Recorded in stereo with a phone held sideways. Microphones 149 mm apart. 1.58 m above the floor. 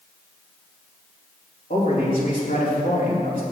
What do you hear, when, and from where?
1.7 s a man speaking: 70° left (ahead or behind), 3 m